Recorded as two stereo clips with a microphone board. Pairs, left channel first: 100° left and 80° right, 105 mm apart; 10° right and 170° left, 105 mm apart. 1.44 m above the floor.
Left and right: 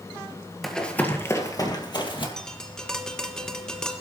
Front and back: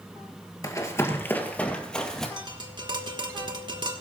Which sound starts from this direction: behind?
Tapping, at 2.4 s.